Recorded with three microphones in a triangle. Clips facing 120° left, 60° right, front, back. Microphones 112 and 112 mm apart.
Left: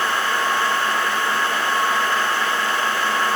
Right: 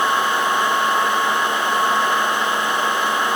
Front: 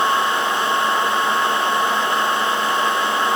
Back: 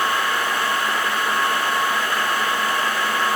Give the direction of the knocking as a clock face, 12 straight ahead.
No knocking in this recording.